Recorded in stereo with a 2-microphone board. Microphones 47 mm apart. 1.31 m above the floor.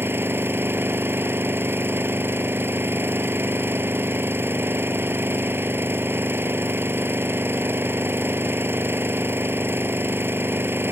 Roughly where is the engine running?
Right.